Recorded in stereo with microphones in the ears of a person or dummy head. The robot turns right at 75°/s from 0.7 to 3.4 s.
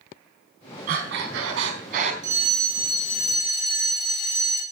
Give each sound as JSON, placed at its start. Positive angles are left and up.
{"t": 0.9, "sound": "breathing", "azimuth_deg": -135, "distance_m": 4.0}
{"t": 2.2, "sound": "a fire alarm", "azimuth_deg": -25, "distance_m": 7.0}